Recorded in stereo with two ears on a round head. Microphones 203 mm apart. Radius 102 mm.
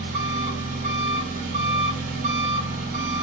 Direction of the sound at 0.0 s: 40° right (ahead or behind).